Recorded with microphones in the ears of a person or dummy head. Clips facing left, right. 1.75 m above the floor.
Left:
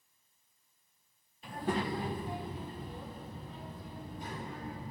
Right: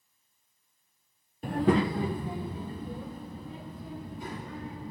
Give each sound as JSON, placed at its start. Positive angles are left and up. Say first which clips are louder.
{"t": 1.4, "sound": "a child speaking", "louder": "right 10 dB", "side_deg": -40, "distance_m": 0.7}